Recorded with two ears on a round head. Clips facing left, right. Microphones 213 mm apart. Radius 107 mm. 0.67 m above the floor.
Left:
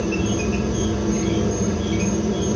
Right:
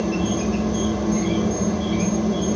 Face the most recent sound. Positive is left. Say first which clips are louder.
# even
turn(degrees=10)  # may be behind; listen again after turning